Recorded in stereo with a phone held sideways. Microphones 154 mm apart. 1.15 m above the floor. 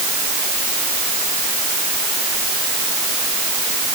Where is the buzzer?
No buzzer in this recording.